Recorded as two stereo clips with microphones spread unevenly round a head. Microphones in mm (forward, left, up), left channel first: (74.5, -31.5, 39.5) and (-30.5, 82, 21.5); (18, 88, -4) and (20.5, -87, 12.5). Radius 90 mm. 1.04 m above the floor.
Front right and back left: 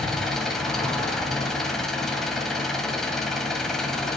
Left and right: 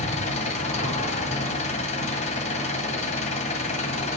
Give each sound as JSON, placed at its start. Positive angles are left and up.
{"t": 0.0, "sound": "an engine running", "azimuth_deg": 40, "distance_m": 1.8}